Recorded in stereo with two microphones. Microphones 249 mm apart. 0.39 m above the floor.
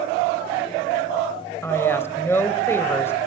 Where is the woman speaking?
10° left (ahead or behind), 1.4 m.